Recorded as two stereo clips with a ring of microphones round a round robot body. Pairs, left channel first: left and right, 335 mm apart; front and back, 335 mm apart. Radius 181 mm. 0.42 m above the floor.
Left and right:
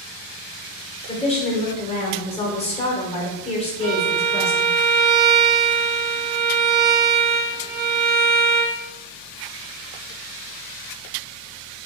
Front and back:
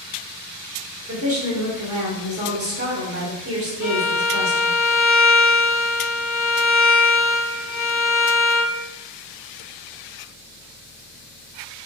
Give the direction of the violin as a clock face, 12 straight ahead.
3 o'clock.